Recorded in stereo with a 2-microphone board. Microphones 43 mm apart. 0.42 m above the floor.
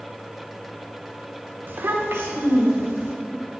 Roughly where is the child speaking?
Right.